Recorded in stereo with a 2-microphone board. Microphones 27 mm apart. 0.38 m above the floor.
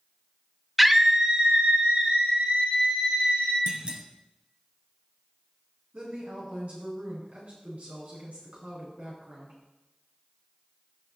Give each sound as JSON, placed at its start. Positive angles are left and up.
{"t": 0.8, "sound": "a scream", "side_deg": -5, "distance_m": 0.9}
{"t": 3.7, "sound": "a clunk", "side_deg": -30, "distance_m": 0.8}
{"t": 5.9, "sound": "a woman speaking", "side_deg": -65, "distance_m": 4.0}